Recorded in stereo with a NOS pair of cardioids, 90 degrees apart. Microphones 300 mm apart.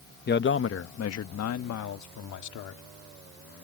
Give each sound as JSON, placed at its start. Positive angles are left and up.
{"t": 0.3, "sound": "a man speaking", "azimuth_deg": 35}